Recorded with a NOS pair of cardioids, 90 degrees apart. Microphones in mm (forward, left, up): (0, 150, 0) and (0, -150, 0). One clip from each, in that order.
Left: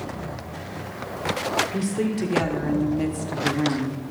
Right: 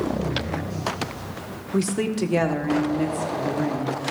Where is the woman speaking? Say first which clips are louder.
Right 2 dB; 40° right, 2 m; by 4.0 s 35° left, 1.9 m.